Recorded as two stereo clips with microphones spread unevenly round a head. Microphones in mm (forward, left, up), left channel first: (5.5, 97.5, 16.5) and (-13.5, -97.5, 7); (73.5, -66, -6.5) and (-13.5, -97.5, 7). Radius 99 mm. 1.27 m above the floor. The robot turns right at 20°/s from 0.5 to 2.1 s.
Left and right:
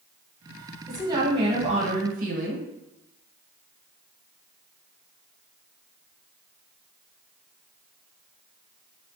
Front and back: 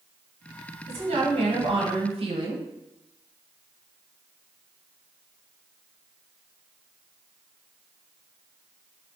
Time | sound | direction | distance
0.9 | a woman speaking | 170° right | 1.0 m